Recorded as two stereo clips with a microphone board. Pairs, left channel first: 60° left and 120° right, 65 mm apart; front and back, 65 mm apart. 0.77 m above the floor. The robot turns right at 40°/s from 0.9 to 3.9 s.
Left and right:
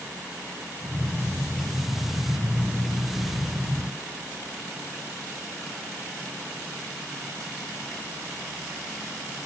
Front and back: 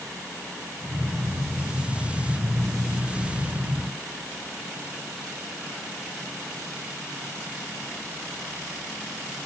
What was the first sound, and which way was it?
Only background noise.